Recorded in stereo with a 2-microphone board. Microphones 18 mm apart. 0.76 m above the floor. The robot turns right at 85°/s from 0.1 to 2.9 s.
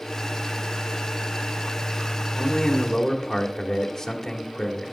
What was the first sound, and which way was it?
A man speaking, 100° left.